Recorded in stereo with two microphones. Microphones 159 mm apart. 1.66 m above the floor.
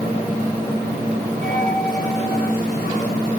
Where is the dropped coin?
50° right (ahead or behind), 6.5 m.